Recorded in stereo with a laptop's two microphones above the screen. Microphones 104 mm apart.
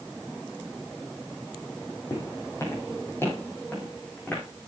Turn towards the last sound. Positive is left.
turn(degrees=15)  # may be behind; listen again after turning